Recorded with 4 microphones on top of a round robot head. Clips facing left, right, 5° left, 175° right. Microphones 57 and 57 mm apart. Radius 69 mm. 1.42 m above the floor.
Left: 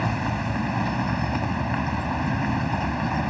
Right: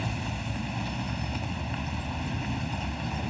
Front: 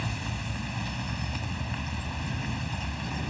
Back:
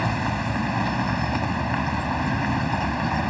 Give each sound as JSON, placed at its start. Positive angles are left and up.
{"t": 0.0, "sound": "a vehicle", "azimuth_deg": 145}